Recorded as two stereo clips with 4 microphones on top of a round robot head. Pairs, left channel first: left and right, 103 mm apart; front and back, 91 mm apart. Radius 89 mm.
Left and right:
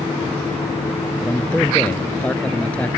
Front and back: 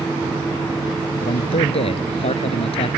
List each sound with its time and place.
1.2 s a man speaking: 10° left